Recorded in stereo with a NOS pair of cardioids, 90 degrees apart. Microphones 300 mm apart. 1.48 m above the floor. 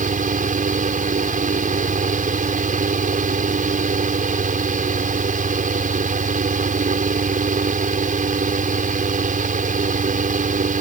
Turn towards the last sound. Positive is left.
turn(degrees=-25)